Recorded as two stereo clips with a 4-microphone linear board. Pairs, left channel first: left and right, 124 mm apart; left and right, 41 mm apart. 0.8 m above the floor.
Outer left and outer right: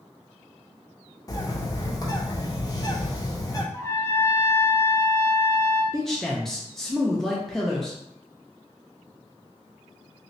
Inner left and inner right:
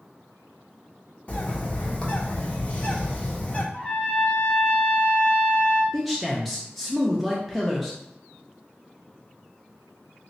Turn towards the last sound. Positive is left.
turn(degrees=5)  # may be behind; listen again after turning